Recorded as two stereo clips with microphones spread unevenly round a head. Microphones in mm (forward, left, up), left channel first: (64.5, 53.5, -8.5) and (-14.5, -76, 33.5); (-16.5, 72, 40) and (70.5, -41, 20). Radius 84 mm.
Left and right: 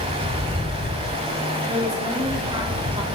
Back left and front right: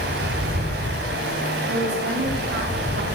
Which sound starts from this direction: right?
Running water, at 0.0 s.